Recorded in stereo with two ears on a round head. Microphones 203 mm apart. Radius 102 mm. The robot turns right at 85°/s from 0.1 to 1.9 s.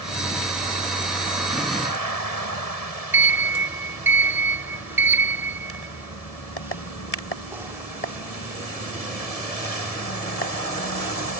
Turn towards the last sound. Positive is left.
turn(degrees=-10)  # may be behind; listen again after turning